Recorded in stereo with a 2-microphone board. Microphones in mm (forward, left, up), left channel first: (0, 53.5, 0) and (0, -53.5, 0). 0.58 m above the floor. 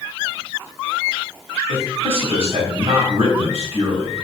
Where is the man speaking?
65° right (ahead or behind), 3.5 m.